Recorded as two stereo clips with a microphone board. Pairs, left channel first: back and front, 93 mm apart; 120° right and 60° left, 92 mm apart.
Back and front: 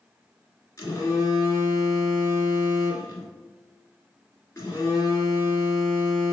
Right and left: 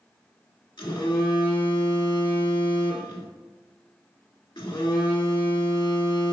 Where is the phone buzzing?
130° right, 1.2 m.